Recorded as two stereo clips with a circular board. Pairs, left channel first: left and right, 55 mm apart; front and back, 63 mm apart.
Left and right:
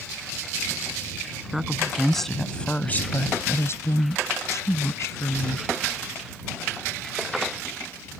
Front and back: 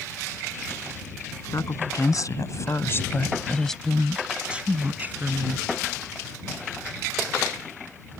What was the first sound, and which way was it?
A woman speaking, 5° right.